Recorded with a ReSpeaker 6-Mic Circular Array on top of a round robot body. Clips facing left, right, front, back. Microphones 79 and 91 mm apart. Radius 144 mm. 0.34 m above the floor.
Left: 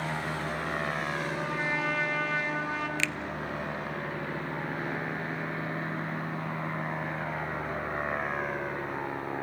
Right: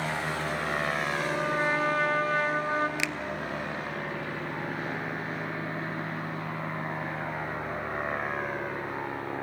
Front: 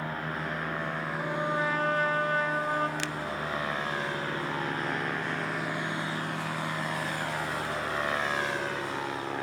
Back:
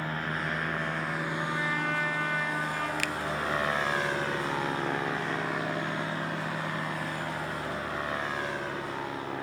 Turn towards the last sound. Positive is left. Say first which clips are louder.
# even, back 1 dB
turn(degrees=-30)